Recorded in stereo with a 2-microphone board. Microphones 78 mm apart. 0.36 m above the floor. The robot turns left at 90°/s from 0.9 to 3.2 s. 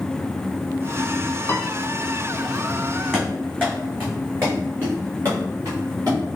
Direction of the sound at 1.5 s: 35° left (ahead or behind).